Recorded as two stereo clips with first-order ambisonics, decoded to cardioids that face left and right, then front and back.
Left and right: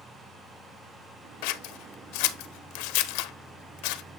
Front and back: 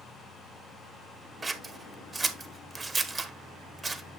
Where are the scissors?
100° left, 0.8 m.